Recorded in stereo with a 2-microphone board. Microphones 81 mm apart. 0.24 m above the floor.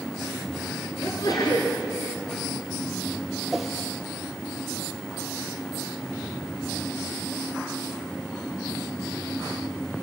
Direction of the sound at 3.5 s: 5° right (ahead or behind).